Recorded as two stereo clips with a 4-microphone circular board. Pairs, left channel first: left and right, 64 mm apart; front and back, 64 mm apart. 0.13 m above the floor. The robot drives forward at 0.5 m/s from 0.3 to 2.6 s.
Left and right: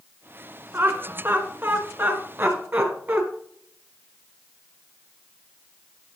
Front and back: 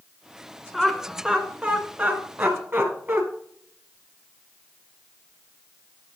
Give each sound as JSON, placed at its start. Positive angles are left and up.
{"t": 0.7, "sound": "laughter", "azimuth_deg": -95, "distance_m": 1.4}